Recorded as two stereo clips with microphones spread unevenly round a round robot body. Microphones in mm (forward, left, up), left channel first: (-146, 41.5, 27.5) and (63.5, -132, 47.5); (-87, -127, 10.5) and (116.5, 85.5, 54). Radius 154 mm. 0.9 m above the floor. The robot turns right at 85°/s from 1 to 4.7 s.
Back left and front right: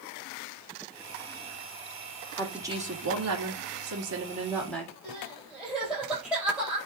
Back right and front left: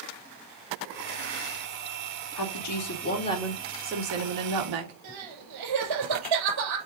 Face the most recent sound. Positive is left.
turn(degrees=45)